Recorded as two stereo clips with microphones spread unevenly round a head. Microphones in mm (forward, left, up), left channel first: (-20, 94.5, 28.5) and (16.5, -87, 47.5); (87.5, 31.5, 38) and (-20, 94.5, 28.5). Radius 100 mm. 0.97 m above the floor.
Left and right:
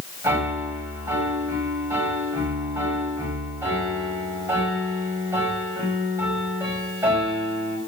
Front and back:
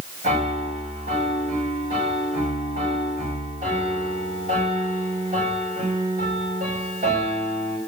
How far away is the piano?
About 5 m.